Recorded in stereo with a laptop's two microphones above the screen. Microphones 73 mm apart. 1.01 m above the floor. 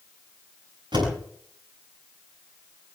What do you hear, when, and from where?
0.9 s a door slam: 80° right, 8 m